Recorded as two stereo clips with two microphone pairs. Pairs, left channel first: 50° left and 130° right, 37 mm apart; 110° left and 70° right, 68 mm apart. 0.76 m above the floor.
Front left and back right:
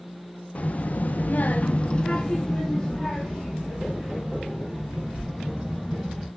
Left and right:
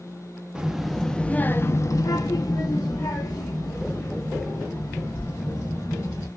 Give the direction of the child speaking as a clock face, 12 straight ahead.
12 o'clock.